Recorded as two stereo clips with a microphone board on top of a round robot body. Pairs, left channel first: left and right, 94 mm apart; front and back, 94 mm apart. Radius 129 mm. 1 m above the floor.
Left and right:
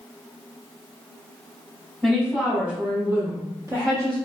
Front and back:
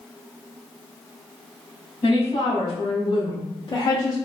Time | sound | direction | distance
2.0 | a woman speaking | 5° right | 1.6 m